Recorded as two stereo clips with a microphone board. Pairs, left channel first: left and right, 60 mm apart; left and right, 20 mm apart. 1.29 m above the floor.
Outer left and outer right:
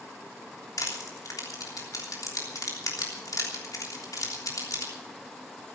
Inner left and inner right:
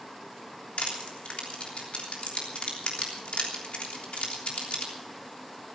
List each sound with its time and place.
0.8 s crushing: 75° left (ahead or behind), 3 m